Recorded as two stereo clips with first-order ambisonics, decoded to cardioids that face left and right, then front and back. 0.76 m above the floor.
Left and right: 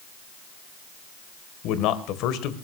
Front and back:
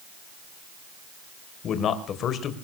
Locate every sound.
1.6 s a man speaking: 55° left, 2.5 m